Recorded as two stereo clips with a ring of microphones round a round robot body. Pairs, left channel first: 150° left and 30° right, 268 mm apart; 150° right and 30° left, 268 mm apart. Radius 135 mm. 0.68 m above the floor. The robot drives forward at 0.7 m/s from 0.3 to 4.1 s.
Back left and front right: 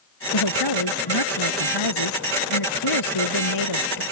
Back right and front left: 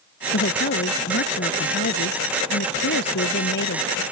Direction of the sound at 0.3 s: 155° left.